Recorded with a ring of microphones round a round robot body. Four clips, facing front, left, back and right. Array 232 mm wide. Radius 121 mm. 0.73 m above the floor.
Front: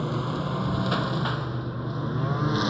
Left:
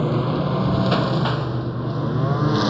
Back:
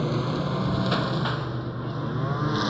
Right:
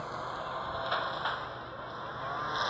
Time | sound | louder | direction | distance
0.0 | a lawn mower | left 15 dB, back 2 dB | 100° left | ?